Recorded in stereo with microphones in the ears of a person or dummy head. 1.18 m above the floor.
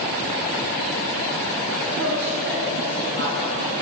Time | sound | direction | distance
1.8 | a woman speaking | 65° right (ahead or behind) | 5 m